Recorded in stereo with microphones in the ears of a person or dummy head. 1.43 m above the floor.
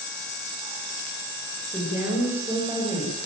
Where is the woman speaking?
15° right (ahead or behind), 7 m.